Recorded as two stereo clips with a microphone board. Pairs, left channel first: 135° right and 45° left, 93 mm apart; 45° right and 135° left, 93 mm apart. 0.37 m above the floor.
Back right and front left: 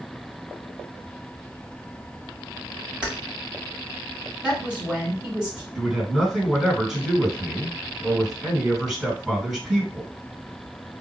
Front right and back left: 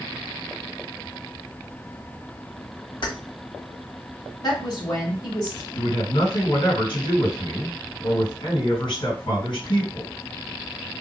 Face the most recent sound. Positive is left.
turn(degrees=-40)